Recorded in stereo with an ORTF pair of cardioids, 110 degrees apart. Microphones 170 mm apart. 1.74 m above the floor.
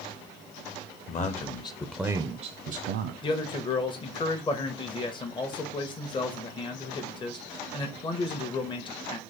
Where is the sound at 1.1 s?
45° left, 1.2 m; by 3.1 s 75° right, 1.1 m.